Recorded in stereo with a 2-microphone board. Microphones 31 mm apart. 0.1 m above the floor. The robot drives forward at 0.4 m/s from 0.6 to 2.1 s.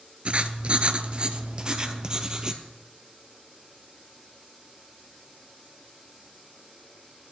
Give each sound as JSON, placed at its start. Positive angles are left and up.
{"t": 0.2, "sound": "writing", "side_deg": -40, "distance_m": 0.5}